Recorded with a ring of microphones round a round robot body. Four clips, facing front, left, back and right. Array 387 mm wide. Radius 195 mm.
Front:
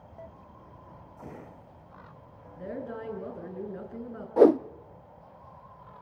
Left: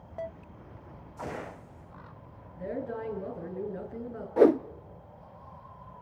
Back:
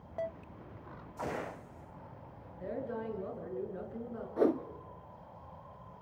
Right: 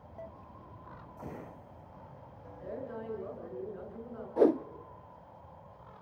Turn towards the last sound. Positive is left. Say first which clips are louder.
# left 5 dB, front 11 dB
turn(degrees=20)